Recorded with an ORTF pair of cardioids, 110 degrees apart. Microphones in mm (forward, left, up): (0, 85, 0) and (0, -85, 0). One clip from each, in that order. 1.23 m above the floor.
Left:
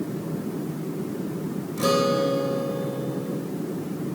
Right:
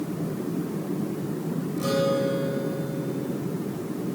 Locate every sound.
1.8 s a guitar: 50° left, 3.5 m